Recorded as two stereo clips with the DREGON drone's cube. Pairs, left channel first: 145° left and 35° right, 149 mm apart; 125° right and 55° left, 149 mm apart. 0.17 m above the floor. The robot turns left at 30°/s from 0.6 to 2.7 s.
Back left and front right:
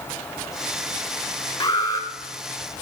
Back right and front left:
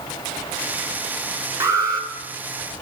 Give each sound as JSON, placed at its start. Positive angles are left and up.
{"t": 1.6, "sound": "an alarm", "azimuth_deg": 110, "distance_m": 2.0}